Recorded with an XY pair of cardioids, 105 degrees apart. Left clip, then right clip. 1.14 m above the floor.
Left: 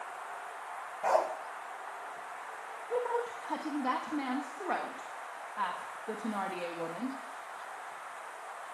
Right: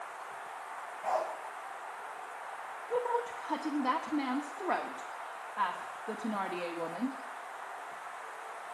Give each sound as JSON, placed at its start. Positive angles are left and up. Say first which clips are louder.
{"t": 1.0, "sound": "a dog barking", "louder": "left 4 dB", "azimuth_deg": 70, "distance_m": 1.8}
{"t": 2.9, "sound": "a woman speaking", "louder": "even", "azimuth_deg": -10, "distance_m": 1.5}